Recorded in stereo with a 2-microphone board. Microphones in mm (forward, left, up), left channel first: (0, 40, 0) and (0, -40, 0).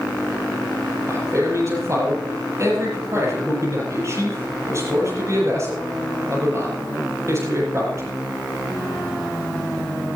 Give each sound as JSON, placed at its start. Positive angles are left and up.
{"t": 1.1, "sound": "a man speaking", "side_deg": -40, "distance_m": 7.5}